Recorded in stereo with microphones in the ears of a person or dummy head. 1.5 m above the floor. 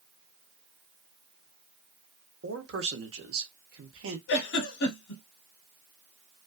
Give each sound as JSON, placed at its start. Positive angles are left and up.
{"t": 2.4, "sound": "a man speaking", "side_deg": -65, "distance_m": 0.8}
{"t": 4.3, "sound": "a giggle", "side_deg": 70, "distance_m": 1.0}